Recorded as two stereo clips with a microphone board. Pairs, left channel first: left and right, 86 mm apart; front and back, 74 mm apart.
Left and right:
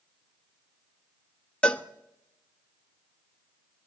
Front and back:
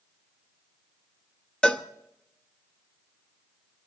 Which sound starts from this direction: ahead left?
A cowbell, at 1.6 s.